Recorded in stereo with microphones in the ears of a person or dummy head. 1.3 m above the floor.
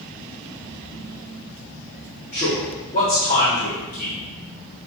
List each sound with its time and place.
2.3 s a man speaking: 45° left (ahead or behind), 3.5 m